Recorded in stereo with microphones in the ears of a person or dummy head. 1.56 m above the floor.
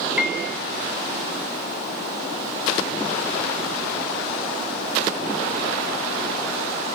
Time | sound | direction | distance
0.2 | a piano | 5° right (ahead or behind) | 2.5 m